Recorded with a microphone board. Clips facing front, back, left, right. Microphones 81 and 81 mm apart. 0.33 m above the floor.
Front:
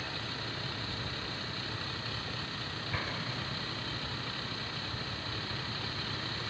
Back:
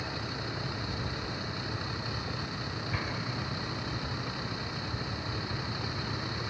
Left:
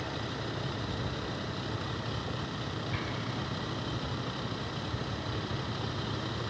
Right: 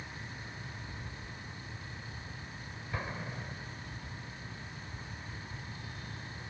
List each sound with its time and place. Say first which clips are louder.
0.0 s a vehicle: back 3 dB, left 10 dB; 105° left
2.9 s an explosion: back 1 dB, left 4 dB; 85° right